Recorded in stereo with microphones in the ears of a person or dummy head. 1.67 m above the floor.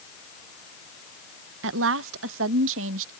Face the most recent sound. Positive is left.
turn(degrees=-75)  # may be behind; listen again after turning